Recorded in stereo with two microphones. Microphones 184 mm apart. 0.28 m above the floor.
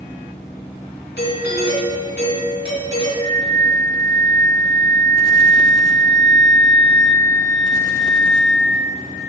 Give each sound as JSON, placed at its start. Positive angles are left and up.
{"t": 1.2, "sound": "a doorbell", "side_deg": 60, "distance_m": 3.5}
{"t": 3.2, "sound": "a flute", "side_deg": 25, "distance_m": 1.2}